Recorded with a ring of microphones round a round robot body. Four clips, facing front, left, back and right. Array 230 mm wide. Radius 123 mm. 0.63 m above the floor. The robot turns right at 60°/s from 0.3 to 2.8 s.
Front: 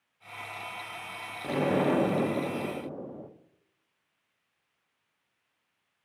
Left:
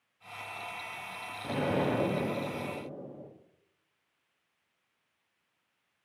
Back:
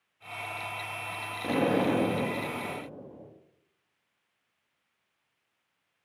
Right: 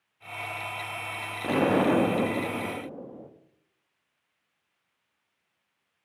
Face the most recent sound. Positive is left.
turn(degrees=-25)